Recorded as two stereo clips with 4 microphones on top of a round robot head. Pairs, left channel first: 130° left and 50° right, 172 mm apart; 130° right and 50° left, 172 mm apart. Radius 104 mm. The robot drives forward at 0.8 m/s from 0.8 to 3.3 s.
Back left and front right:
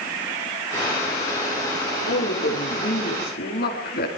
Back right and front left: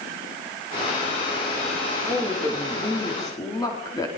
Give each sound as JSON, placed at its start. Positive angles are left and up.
{"t": 2.1, "sound": "a woman speaking", "azimuth_deg": 160, "distance_m": 3.5}